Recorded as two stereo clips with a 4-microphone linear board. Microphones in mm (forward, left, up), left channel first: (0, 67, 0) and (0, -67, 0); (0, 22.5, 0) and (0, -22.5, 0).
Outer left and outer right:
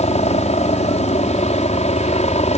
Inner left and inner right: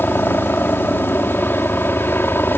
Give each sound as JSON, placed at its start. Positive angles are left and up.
{"t": 0.0, "sound": "a helicopter", "side_deg": 55}